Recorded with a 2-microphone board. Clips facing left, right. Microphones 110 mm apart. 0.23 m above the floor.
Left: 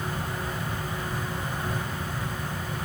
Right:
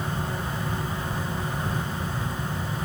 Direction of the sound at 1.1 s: 50° right (ahead or behind).